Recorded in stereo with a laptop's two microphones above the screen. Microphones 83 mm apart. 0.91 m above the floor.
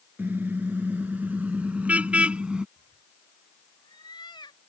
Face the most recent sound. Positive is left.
turn(degrees=60)  # may be behind; listen again after turning